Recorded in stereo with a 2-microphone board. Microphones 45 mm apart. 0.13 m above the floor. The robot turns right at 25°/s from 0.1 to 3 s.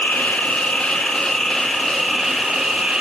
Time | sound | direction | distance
0.0 | an insect | 135° left | 1.3 m